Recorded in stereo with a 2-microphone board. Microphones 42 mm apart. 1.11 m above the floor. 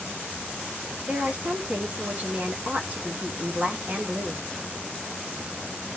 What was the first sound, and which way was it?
A woman speaking, 35° right (ahead or behind).